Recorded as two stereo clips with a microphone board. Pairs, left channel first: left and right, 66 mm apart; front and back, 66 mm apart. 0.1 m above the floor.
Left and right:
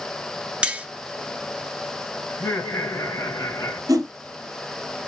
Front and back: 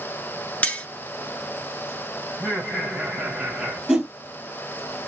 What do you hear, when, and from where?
0.6 s cutlery clinking: 35° right, 0.7 m
2.3 s laughter: 105° left, 3 m
3.9 s a whoosh: 100° right, 1.6 m